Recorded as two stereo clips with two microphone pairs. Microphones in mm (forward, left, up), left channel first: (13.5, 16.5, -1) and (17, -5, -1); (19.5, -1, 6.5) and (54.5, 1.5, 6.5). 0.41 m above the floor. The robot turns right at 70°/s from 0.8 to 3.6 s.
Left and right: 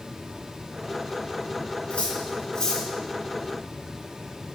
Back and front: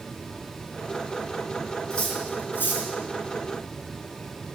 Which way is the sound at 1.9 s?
110° left.